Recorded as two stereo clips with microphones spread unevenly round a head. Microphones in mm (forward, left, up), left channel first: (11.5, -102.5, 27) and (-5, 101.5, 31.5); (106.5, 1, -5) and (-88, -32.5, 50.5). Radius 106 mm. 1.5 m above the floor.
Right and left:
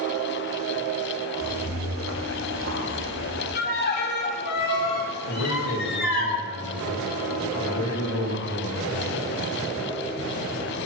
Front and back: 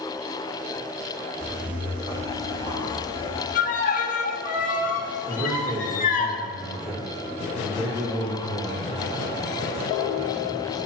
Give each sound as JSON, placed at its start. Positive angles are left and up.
{"t": 1.4, "sound": "footsteps", "azimuth_deg": 115, "distance_m": 2.0}
{"t": 3.5, "sound": "a violin", "azimuth_deg": -45, "distance_m": 1.9}
{"t": 5.3, "sound": "a man speaking", "azimuth_deg": -90, "distance_m": 2.5}